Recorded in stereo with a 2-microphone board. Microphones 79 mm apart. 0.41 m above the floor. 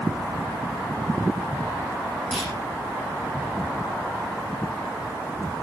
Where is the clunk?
Centre (ahead or behind), 7.5 m.